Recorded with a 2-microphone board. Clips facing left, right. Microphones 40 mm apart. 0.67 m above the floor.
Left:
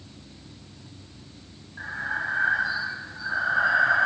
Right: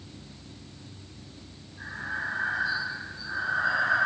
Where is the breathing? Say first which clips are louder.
Left 4 dB; 70° left (ahead or behind), 1.0 m.